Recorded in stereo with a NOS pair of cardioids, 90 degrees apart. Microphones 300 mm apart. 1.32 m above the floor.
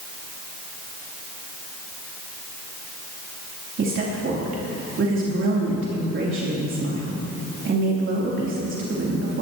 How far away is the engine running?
No engine running in this recording.